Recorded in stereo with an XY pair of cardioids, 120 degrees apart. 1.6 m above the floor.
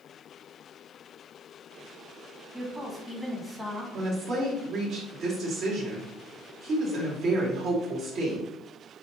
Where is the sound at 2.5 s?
10° right, 1.0 m.